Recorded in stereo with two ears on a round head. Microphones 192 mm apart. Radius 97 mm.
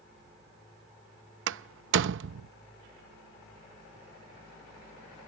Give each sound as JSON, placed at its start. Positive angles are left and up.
{"t": 1.5, "sound": "a door slam", "side_deg": -60}